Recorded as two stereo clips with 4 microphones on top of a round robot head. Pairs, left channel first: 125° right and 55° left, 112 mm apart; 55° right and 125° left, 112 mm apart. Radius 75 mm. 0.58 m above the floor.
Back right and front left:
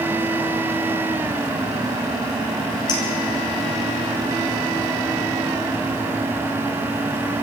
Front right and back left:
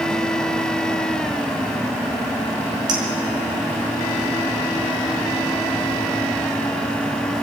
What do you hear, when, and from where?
2.9 s a clink: straight behind, 4.5 m